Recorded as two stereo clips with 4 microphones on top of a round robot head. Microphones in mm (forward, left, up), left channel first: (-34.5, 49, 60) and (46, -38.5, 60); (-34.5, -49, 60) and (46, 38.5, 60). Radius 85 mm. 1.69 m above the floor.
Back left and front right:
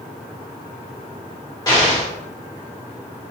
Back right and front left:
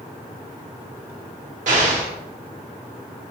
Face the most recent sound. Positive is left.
turn(degrees=75)